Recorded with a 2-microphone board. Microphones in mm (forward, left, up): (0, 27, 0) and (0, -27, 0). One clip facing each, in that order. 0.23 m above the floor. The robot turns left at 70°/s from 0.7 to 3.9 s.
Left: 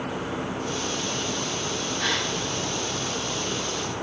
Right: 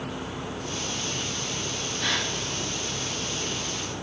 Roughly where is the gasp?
Left.